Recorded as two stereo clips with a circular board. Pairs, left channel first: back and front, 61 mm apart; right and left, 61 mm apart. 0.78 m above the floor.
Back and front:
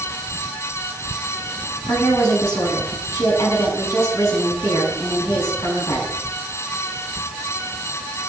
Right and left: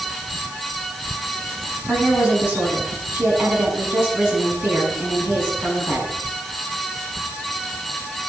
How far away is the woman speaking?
About 7.5 m.